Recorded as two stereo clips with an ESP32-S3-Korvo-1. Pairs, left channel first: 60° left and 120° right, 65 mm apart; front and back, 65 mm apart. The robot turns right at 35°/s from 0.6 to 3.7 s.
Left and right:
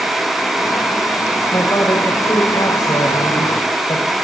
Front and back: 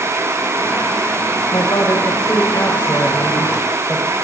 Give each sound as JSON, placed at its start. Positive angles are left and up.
{"t": 1.5, "sound": "a woman speaking", "azimuth_deg": 15, "distance_m": 5.0}